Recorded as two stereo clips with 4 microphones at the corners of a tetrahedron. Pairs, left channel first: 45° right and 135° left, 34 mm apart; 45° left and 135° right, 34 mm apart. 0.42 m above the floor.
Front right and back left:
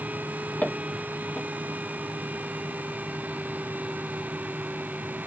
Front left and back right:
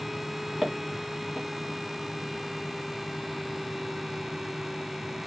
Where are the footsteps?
60° right, 2 m.